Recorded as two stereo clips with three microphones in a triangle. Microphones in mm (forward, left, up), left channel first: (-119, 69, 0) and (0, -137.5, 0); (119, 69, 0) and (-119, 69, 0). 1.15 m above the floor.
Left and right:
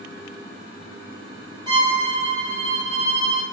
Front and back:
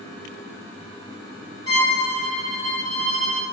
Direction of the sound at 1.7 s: 10° left.